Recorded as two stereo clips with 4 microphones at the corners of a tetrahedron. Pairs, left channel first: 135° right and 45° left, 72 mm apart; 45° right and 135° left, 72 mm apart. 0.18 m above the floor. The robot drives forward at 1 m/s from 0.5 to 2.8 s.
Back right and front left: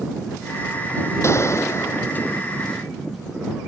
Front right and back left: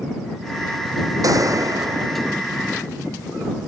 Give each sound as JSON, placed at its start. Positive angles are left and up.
{"t": 1.2, "sound": "a gunshot", "azimuth_deg": 175}